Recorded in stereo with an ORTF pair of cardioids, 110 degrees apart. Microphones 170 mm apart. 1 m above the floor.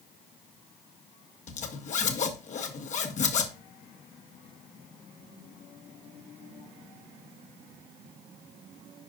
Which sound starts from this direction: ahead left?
A zipper, at 1.5 s.